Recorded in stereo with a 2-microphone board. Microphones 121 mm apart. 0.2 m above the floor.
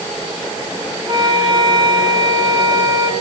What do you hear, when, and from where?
1.1 s a flute: 35° right (ahead or behind), 2.5 m